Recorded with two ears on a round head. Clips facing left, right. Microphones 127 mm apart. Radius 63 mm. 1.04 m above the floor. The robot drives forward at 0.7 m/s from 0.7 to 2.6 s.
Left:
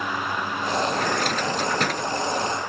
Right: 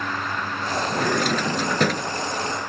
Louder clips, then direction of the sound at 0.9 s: Right 2 dB; 75° right (ahead or behind).